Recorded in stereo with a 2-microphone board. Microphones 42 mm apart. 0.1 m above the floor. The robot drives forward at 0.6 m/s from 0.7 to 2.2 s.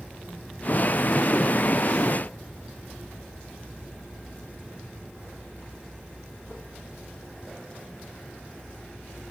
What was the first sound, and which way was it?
Only background noise.